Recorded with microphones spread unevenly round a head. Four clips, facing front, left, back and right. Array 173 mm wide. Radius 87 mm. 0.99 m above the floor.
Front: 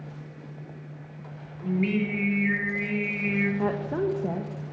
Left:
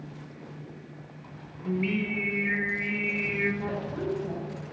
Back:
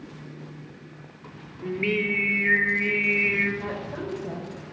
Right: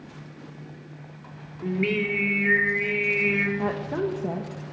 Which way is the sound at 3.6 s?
45° right.